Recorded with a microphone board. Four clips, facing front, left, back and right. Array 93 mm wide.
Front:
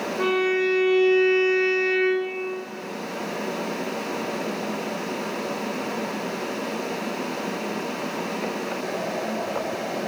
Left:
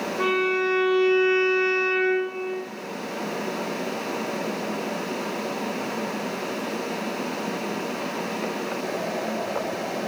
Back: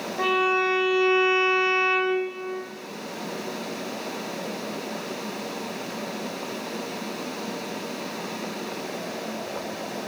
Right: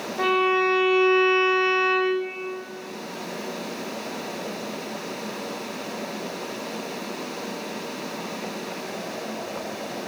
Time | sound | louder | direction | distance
0.2 | a violin | right 3 dB, even | 125° right | 5.5 m